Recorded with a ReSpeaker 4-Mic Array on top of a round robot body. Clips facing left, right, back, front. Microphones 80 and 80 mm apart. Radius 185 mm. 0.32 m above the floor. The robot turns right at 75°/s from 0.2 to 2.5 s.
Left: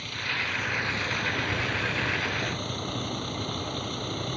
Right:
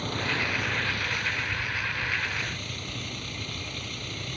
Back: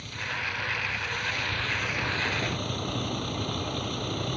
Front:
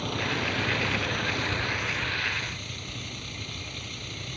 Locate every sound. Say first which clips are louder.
0.0 s a vehicle: right 3 dB, front 5 dB; 35° right; by 4.4 s 140° left